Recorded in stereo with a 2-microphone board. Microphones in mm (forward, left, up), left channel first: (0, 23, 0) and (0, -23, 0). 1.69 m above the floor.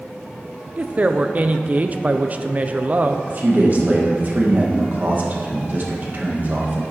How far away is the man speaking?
About 1.7 m.